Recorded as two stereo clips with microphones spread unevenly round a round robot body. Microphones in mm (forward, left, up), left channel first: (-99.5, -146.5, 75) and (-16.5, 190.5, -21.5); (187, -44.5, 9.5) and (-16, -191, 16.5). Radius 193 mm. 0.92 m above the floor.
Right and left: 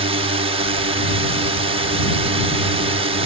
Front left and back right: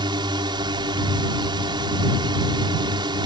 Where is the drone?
140° left.